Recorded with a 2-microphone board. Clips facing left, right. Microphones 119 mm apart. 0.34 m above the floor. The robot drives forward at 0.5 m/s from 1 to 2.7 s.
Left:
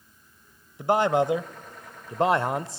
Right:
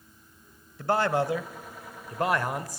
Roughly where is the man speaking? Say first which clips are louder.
Left 3 dB; centre.